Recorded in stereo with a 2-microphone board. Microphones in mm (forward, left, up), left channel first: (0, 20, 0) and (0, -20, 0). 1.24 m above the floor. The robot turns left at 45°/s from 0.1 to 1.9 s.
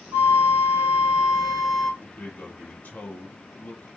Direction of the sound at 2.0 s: 40° left (ahead or behind).